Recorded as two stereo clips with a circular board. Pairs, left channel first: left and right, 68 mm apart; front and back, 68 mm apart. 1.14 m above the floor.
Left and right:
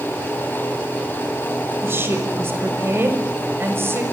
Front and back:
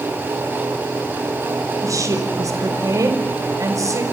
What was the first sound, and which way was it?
A woman speaking, 145° right.